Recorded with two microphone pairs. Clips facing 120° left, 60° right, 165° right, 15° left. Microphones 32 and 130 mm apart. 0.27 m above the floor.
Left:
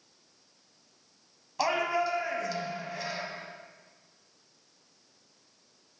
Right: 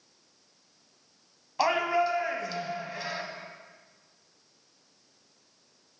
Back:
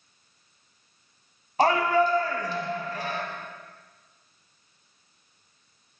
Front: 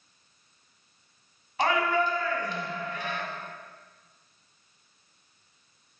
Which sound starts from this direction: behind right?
A shout, at 1.6 s.